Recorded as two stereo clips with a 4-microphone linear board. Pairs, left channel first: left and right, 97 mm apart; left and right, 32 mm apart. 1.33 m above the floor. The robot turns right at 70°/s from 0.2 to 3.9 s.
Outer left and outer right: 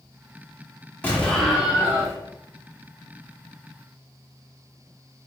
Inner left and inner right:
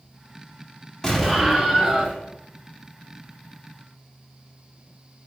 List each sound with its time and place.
1.0 s an explosion: 155° left, 1.2 m; by 2.2 s 130° right, 1.2 m